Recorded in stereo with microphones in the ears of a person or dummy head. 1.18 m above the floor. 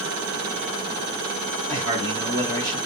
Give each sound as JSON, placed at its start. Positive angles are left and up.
{"t": 1.7, "sound": "a man speaking", "side_deg": 20, "distance_m": 1.3}